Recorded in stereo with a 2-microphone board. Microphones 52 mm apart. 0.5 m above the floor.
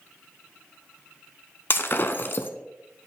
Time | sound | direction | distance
1.7 | breaking glass | 50° left (ahead or behind) | 0.7 m